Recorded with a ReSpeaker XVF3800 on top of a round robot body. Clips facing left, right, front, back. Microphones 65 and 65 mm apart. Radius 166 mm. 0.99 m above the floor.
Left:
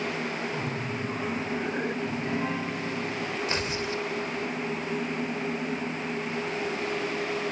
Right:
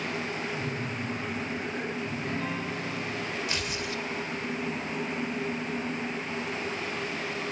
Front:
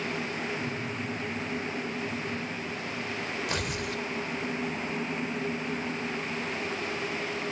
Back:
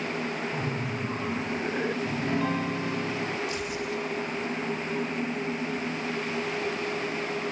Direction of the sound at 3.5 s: 30° left.